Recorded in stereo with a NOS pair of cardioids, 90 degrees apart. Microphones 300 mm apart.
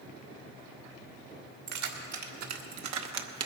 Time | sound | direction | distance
1.7 | keys jangling | 70° right | 1.9 m